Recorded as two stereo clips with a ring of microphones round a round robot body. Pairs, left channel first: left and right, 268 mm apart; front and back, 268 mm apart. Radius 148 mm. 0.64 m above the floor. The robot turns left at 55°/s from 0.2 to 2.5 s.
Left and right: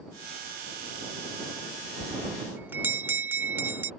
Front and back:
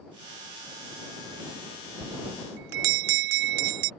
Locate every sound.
2.0 s a bell: 145° right; by 3.9 s 175° right